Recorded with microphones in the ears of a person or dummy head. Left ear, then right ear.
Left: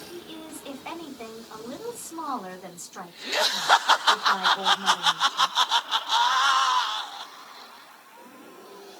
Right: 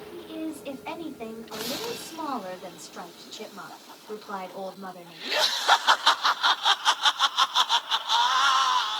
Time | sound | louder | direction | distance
0.1 | a woman speaking | right 4 dB | 15° left (ahead or behind) | 2.5 m